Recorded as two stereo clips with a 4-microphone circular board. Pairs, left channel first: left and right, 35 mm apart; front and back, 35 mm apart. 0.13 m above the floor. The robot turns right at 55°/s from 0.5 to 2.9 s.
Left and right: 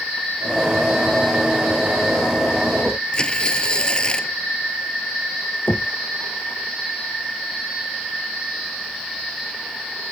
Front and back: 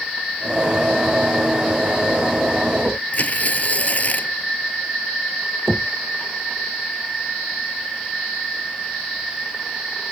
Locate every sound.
3.1 s tearing paper: 30° left
5.7 s knocking: 100° left